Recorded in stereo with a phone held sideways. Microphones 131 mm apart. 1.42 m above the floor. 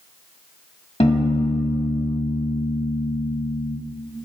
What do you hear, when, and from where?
1.0 s a piano: 50° left (ahead or behind), 1.7 m